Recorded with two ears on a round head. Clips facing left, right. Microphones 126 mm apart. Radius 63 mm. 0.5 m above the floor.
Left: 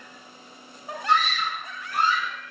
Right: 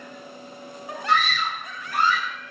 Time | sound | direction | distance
1.1 | a scream | 55° right (ahead or behind) | 9.5 m